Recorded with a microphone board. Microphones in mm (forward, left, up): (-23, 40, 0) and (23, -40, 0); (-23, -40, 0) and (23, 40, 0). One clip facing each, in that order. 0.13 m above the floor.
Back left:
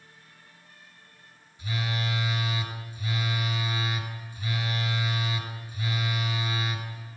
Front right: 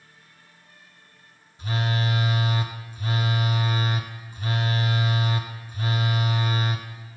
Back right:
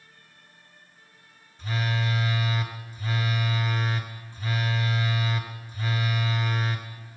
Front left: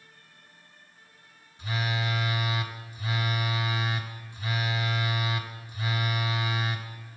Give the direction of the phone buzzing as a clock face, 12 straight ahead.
12 o'clock.